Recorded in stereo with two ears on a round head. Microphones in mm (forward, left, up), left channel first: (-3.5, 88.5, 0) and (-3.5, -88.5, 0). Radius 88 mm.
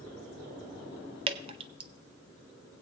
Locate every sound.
1.3 s dripping: 30° right (ahead or behind), 0.6 m